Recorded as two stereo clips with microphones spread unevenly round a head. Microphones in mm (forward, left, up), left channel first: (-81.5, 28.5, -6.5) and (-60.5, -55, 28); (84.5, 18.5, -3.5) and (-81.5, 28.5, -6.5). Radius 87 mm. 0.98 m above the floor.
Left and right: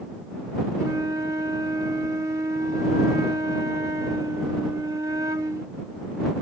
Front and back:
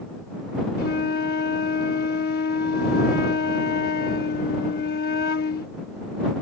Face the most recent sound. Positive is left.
turn(degrees=-30)